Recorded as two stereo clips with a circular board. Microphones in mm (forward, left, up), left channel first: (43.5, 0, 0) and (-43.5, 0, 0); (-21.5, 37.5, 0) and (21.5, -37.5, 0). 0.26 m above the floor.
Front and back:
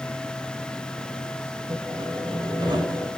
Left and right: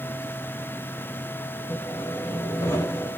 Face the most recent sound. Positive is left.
turn(degrees=180)